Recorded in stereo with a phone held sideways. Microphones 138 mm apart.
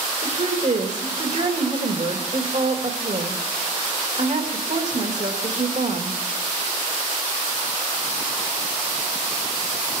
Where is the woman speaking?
60° right (ahead or behind), 2.5 m.